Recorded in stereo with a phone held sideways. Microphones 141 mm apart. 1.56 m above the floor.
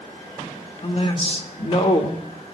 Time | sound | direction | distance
0.8 | a man speaking | 45° left (ahead or behind) | 1.4 m